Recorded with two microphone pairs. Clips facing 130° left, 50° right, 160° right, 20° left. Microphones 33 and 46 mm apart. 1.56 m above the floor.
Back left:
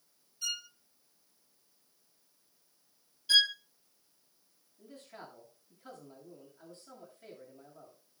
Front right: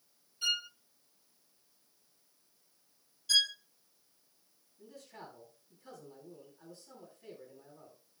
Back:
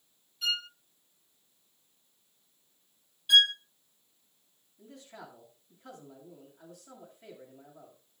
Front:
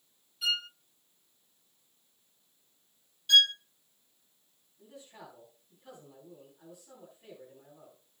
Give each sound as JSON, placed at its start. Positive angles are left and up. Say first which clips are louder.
{"t": 0.4, "sound": "a violin", "louder": "front right 5 dB, front 1 dB", "azimuth_deg": -70, "distance_m": 0.5}
{"t": 3.3, "sound": "a violin", "louder": "back left 3 dB, back 1 dB", "azimuth_deg": 140, "distance_m": 0.9}
{"t": 4.8, "sound": "a man speaking", "louder": "back left 1 dB, back 2 dB", "azimuth_deg": 160, "distance_m": 9.5}